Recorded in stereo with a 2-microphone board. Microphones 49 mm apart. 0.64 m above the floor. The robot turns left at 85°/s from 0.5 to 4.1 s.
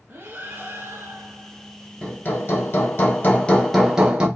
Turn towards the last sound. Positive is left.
turn(degrees=-25)